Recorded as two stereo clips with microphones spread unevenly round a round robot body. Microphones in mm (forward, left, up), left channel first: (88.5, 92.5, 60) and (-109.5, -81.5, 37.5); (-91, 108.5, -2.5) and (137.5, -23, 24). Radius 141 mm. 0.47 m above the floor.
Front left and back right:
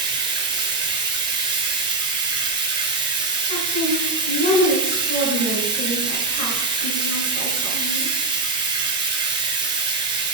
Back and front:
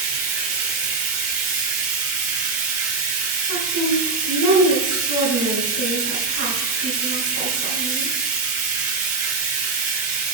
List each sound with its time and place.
0.0 s running water: 70° right, 1.8 m
3.5 s a woman speaking: 15° right, 3.5 m